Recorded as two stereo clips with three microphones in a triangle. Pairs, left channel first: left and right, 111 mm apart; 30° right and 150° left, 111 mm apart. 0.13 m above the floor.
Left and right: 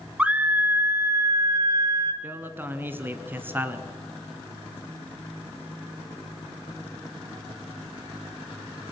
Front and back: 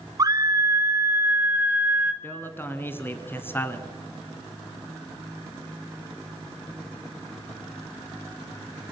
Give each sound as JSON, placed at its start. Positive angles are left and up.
{"t": 0.2, "sound": "a scream", "azimuth_deg": -165, "distance_m": 1.7}
{"t": 2.2, "sound": "a man speaking", "azimuth_deg": -60, "distance_m": 1.7}